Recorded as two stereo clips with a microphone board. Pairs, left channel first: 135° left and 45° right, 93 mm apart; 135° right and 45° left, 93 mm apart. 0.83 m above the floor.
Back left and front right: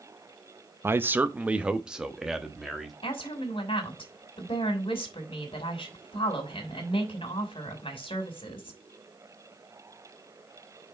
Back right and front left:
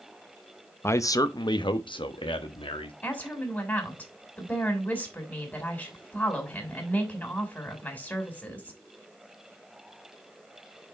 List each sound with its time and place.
0.8 s a man speaking: 90° right, 0.6 m; by 2.9 s 130° right, 1.5 m
3.0 s a woman speaking: 155° left, 2.5 m